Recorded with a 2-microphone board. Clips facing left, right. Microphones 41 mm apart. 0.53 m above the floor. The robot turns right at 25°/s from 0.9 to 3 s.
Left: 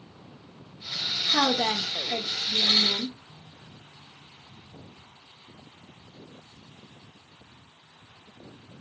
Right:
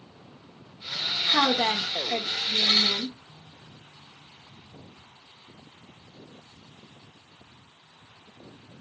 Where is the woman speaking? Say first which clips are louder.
Right 1 dB; 10° right (ahead or behind), 0.7 m; by 3.2 s 25° right (ahead or behind), 0.7 m.